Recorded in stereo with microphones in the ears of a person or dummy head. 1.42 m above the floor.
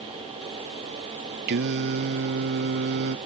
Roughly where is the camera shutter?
No camera shutter in this recording.